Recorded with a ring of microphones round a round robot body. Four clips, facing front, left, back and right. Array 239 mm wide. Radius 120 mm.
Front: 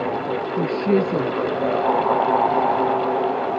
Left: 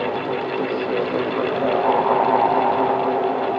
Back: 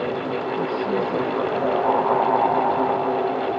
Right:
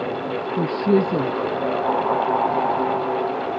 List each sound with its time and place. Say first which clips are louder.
0.6 s a woman speaking: right 7 dB, front 6 dB; 60° right